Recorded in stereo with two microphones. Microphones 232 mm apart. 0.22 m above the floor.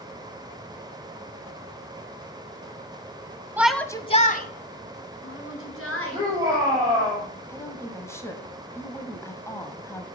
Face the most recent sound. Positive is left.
turn(degrees=10)  # may be behind; listen again after turning